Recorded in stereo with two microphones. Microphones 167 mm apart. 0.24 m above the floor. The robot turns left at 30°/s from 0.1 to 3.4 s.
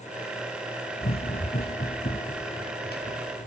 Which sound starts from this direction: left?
Running footsteps, at 1.0 s.